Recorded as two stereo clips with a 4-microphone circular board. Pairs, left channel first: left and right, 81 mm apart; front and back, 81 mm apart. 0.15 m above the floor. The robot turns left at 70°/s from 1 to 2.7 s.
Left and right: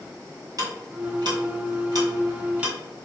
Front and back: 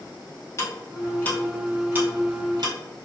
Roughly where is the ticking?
Ahead right.